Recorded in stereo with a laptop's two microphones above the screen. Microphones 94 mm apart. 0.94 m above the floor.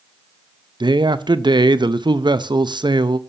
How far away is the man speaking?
About 0.6 m.